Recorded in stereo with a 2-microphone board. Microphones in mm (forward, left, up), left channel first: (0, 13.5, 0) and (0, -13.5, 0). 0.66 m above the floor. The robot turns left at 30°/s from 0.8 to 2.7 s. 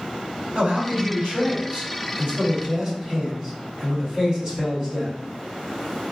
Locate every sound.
0.6 s a man speaking: 100° right, 2.0 m; by 5.1 s 155° right, 2.0 m